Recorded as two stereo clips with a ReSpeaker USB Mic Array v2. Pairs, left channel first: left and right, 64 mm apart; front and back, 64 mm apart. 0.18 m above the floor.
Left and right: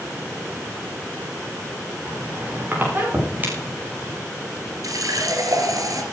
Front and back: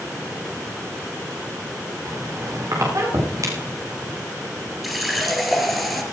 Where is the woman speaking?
No woman speaking in this recording.